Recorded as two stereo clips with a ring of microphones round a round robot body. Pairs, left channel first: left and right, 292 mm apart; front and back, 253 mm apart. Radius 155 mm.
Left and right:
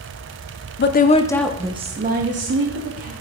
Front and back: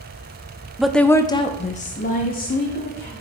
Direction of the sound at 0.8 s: 95° left.